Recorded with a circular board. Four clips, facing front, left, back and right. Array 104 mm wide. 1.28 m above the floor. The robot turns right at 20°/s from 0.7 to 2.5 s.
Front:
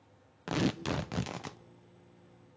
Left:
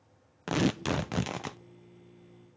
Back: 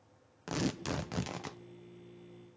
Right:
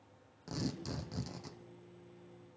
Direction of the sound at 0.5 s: 75° left.